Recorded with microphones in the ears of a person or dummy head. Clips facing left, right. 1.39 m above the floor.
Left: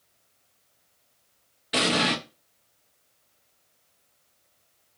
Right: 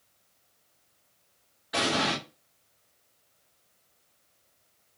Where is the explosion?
30° left (ahead or behind), 0.8 m.